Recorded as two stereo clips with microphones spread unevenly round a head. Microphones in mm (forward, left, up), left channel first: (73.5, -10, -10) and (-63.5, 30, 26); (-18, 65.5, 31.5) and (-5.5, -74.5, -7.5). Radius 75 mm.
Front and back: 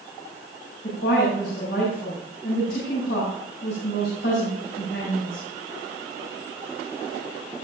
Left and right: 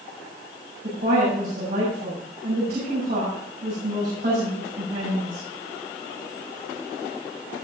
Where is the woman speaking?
50° right, 7 m.